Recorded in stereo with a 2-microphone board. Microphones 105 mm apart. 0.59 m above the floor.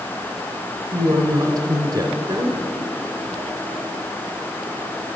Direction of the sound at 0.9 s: 50° right (ahead or behind).